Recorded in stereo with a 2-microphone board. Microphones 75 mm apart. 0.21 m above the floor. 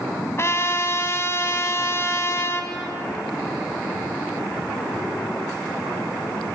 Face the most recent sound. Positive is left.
turn(degrees=35)  # may be behind; listen again after turning